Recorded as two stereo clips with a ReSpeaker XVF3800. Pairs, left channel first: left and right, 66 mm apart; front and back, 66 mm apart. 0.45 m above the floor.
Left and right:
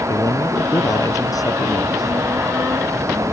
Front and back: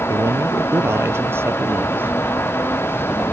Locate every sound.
0.1 s a man speaking: 135° left; by 2.2 s 115° left